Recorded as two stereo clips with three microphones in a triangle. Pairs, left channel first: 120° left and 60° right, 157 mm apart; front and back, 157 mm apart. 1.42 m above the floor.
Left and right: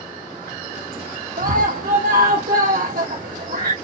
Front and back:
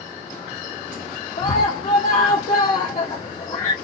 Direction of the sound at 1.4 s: 40° right.